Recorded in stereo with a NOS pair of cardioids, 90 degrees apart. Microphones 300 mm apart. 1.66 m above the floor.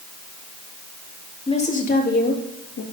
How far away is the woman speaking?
About 3 m.